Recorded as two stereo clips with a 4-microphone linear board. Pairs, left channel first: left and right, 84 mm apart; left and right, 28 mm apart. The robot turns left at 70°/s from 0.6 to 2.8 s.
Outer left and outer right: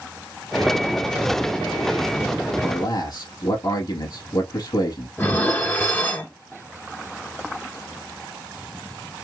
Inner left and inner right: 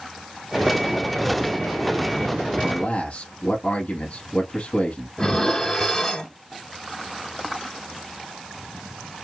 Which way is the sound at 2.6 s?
55° left (ahead or behind).